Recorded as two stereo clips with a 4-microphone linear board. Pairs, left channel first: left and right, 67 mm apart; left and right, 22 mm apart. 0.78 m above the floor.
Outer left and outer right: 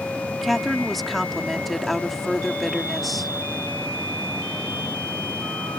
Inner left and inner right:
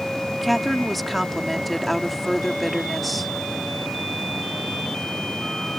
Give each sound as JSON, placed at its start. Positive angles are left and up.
{"t": 0.4, "sound": "a woman speaking", "side_deg": 0}